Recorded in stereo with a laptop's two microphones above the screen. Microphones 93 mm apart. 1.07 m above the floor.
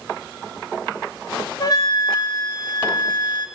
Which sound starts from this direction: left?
A flute, at 1.6 s.